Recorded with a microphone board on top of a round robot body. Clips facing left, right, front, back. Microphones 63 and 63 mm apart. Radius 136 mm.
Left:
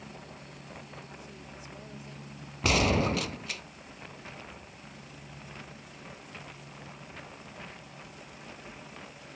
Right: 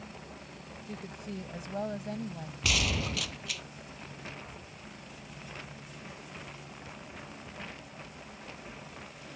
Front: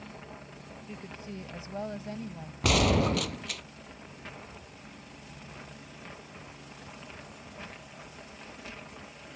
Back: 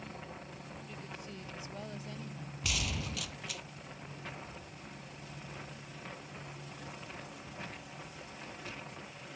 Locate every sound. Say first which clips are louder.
0.9 s a woman speaking: right 5 dB, front 7 dB; 60° right; by 2.5 s 55° right
2.6 s a gunshot: left 7 dB, front 14 dB; 35° left